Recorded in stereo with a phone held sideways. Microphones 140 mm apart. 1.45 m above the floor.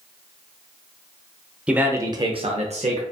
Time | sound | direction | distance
1.7 | a man speaking | 10° right (ahead or behind) | 0.6 m